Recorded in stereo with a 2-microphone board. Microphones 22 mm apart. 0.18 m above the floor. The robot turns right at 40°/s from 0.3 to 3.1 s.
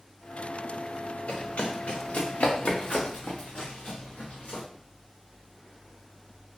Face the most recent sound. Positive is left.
turn(degrees=75)  # may be behind; listen again after turning